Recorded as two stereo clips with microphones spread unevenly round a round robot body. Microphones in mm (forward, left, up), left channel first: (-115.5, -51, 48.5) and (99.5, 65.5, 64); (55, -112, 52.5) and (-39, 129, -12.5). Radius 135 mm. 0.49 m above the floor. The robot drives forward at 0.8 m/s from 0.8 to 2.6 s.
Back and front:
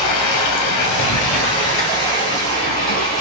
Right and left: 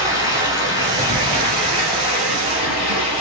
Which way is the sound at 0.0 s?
165° right.